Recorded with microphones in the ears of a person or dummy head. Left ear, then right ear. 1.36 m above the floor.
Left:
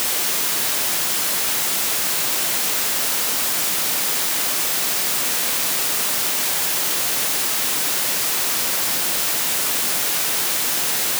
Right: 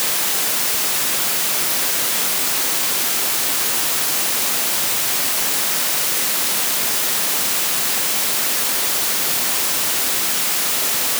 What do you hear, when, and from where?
Only background noise.